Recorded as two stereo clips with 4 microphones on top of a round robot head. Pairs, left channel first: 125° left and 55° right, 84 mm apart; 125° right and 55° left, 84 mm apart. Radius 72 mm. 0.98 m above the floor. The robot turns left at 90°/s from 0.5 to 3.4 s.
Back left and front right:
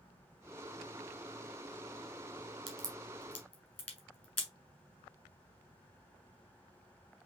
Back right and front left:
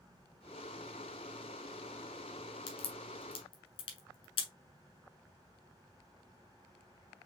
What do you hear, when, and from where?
2.7 s a crack: 95° right, 1.8 m; by 4.5 s 160° right, 1.8 m